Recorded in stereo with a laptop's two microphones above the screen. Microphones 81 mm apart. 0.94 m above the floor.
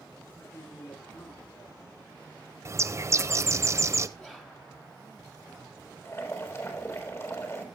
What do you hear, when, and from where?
0.3 s a man speaking: 70° left (ahead or behind), 9.5 m
2.6 s a bird: 35° right (ahead or behind), 1.0 m
4.2 s whispering: 15° left (ahead or behind), 2.5 m
6.0 s boiling: 35° left (ahead or behind), 5 m